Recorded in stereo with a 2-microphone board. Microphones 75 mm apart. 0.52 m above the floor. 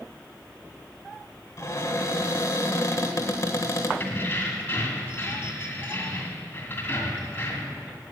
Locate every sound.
1.6 s a cupboard door: 40° left (ahead or behind), 1.3 m
4.0 s keys jangling: 25° left (ahead or behind), 2 m